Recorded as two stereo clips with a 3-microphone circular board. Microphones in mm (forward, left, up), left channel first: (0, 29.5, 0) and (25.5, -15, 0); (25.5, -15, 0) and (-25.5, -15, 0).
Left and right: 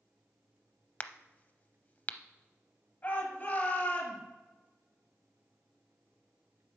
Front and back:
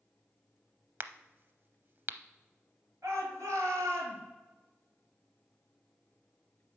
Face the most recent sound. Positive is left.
turn(degrees=180)